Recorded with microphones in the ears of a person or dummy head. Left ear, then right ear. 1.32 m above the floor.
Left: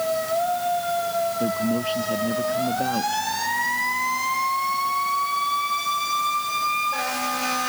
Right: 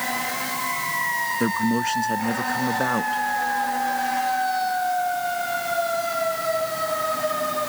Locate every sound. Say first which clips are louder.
1.4 s a man speaking: right 1 dB; 60° right (ahead or behind)